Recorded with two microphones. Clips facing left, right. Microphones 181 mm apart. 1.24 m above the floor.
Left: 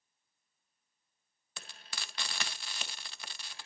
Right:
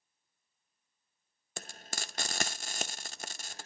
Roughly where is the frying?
Right.